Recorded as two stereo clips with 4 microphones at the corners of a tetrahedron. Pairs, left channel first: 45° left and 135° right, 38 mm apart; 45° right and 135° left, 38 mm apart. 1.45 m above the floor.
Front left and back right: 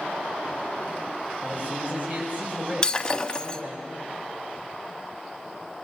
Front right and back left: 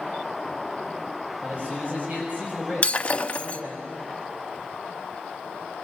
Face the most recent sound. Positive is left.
turn(degrees=-10)